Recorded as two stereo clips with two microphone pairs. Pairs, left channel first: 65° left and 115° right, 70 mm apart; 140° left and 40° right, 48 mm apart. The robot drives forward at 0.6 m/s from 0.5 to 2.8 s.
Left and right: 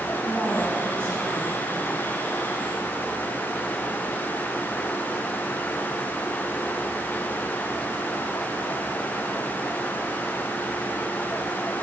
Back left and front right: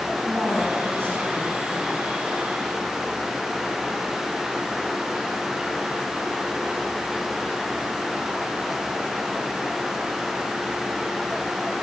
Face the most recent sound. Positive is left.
turn(degrees=-80)